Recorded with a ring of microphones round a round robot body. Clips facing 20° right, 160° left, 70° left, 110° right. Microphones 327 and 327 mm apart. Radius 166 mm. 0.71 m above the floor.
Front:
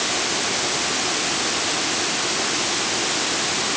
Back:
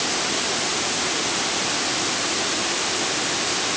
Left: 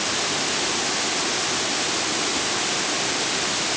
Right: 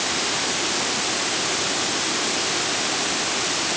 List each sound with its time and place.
Only background noise.